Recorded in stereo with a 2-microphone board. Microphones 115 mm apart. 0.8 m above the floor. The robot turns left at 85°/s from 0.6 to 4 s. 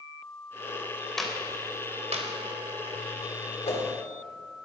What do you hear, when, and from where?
1.2 s a clap: 5° left (ahead or behind), 2.5 m; by 2.3 s 85° right, 2.5 m
3.6 s a whoosh: 70° left (ahead or behind), 3 m; by 3.8 s 65° left (ahead or behind), 3 m